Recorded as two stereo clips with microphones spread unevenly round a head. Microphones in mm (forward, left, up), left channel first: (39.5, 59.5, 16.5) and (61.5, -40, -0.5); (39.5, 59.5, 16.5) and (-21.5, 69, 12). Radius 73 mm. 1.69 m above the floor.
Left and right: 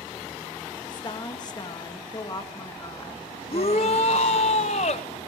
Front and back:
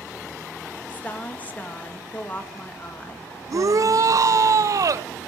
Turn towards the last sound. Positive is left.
turn(degrees=140)